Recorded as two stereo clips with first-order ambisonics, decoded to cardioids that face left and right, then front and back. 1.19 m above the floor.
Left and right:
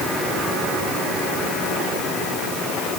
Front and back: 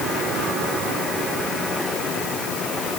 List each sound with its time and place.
Only background noise.